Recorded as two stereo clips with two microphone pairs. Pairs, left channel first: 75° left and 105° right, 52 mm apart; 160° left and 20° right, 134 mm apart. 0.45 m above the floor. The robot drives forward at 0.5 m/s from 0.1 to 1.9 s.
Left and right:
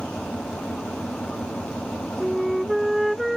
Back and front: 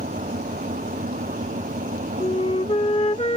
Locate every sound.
0.0 s an engine running: straight ahead
2.2 s a flute: 170° left